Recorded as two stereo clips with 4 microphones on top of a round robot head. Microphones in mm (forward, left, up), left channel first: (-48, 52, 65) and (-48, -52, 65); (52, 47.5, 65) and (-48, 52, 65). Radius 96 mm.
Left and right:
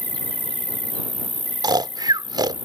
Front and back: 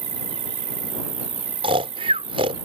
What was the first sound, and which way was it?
An insect, 165° left.